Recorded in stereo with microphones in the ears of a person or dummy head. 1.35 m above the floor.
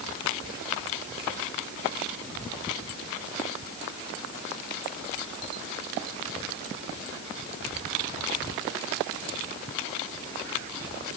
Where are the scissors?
No scissors in this recording.